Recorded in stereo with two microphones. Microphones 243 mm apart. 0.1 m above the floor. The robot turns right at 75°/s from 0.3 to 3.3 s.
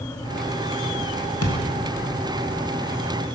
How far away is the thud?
About 1.6 m.